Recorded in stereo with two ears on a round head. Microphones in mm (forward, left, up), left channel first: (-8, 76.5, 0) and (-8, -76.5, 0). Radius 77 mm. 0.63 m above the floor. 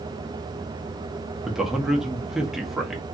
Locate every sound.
1.4 s a man speaking: 5° right (ahead or behind), 0.7 m